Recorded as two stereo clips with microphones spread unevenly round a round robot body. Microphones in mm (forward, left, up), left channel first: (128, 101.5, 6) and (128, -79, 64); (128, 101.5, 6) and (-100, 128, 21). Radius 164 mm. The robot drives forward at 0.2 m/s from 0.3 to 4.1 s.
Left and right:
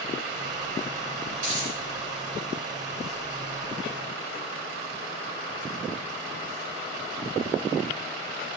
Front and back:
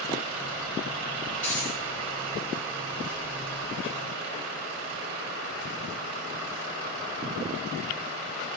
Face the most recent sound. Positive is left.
turn(degrees=-120)